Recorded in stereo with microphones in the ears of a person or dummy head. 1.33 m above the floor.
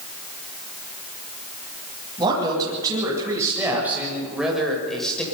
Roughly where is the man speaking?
Right.